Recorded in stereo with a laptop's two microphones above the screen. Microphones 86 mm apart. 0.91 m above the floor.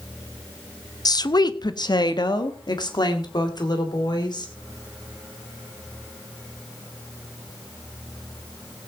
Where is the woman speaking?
50° left (ahead or behind), 0.6 m; by 4.5 s 55° left (ahead or behind), 3 m.